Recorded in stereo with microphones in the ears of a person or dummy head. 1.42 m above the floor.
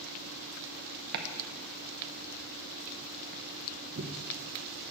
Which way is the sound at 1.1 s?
65° right (ahead or behind).